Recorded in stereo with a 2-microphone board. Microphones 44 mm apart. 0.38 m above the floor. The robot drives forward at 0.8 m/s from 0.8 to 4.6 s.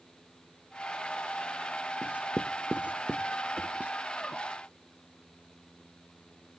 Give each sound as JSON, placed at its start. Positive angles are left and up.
{"t": 2.0, "sound": "writing", "side_deg": -25}